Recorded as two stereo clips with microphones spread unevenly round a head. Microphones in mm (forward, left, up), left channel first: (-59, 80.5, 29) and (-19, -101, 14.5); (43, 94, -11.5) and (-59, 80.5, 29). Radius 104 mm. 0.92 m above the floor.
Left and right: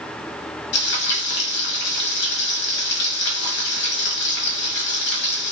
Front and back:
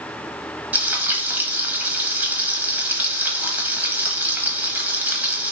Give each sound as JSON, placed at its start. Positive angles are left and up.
{"t": 0.7, "sound": "frying", "azimuth_deg": 100, "distance_m": 1.0}